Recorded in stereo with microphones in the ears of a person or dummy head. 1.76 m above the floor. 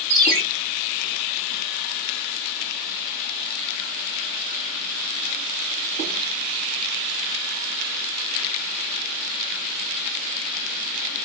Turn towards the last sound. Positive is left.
turn(degrees=-30)  # may be behind; listen again after turning